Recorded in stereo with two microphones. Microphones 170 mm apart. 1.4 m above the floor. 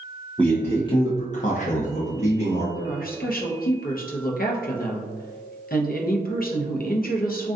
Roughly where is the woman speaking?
Left.